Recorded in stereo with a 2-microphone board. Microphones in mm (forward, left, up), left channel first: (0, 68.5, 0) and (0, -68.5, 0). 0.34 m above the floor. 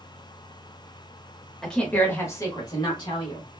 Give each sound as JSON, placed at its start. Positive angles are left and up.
{"t": 1.6, "sound": "a woman speaking", "side_deg": 0, "distance_m": 1.1}